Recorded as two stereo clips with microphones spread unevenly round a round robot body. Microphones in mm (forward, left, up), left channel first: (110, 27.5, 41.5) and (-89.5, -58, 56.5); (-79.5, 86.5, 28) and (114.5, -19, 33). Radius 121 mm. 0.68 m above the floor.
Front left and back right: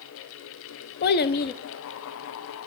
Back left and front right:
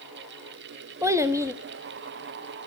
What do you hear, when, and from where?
1.0 s a child speaking: 50° left, 0.6 m